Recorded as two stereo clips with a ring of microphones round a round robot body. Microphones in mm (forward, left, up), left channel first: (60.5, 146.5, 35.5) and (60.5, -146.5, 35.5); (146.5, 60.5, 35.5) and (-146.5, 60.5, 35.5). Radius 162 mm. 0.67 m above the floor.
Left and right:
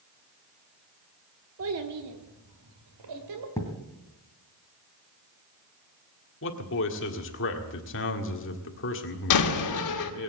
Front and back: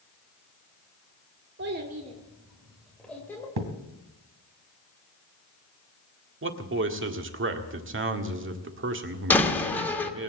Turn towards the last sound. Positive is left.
turn(degrees=85)